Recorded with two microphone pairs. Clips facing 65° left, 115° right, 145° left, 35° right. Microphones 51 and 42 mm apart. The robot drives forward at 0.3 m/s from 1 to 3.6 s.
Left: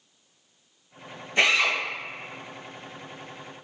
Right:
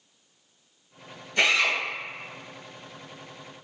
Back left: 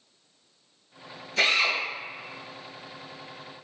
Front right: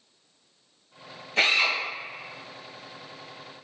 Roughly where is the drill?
Ahead.